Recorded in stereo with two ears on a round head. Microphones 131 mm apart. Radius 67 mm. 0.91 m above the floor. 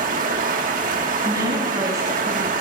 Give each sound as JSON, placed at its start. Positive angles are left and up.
{"t": 0.0, "sound": "running water", "side_deg": -60, "distance_m": 1.6}
{"t": 1.2, "sound": "a woman speaking", "side_deg": -25, "distance_m": 6.5}